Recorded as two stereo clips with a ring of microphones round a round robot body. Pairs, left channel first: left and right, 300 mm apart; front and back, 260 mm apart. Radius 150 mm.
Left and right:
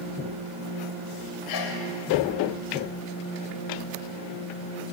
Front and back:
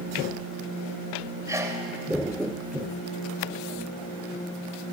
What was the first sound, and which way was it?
A sneeze, 100° left.